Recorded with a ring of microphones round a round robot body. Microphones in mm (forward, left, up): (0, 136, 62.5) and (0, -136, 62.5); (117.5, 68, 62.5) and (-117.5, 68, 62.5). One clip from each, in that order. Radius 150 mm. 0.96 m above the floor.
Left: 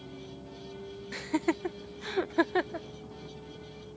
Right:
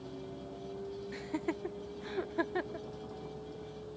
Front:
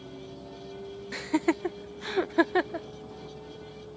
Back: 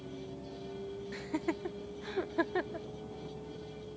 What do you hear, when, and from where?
0.0 s a vehicle: 30° right
1.1 s laughter: 30° left